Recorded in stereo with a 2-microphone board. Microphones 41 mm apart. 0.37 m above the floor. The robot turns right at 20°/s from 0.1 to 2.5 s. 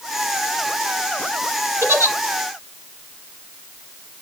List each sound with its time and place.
1.8 s a giggle: 75° right (ahead or behind), 1.1 m; by 2.1 s 80° right, 1.1 m